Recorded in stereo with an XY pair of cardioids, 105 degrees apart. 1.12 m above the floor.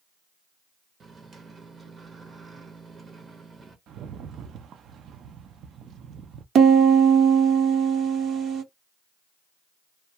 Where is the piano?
65° right, 1.0 m.